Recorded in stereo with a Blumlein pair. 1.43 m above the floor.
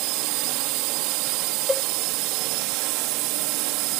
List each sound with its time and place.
0.0 s a drone: 40° right
1.7 s a cowbell: 10° left